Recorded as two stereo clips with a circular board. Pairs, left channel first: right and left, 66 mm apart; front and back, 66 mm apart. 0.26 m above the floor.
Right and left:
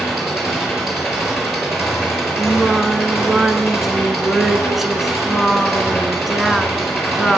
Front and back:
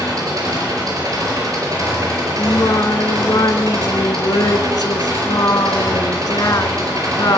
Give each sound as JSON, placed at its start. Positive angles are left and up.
{"t": 0.0, "sound": "an engine running", "azimuth_deg": 175, "distance_m": 4.5}
{"t": 2.4, "sound": "singing", "azimuth_deg": 0, "distance_m": 0.7}